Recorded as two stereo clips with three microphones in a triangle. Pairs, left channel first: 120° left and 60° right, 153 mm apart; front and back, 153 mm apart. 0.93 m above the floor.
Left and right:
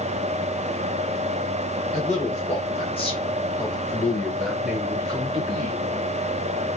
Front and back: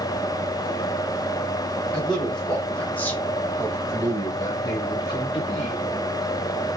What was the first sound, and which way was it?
A man speaking, 85° left.